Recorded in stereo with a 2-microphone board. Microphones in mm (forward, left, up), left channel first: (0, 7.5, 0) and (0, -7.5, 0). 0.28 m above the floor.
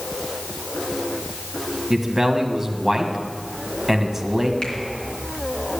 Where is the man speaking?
20° right (ahead or behind), 1.7 m.